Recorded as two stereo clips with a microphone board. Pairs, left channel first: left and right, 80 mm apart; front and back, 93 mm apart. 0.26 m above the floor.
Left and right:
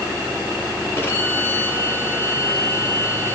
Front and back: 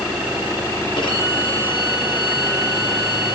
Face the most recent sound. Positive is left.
turn(degrees=25)